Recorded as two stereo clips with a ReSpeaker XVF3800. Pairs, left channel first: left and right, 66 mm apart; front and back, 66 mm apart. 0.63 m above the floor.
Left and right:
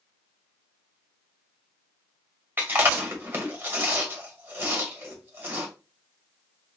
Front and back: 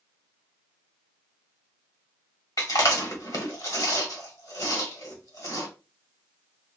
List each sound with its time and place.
2.6 s chewing: 30° right, 1.5 m